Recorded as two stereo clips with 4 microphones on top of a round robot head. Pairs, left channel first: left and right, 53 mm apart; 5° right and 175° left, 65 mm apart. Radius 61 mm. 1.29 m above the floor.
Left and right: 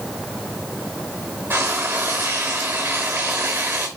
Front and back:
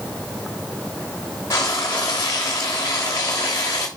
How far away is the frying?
About 0.9 m.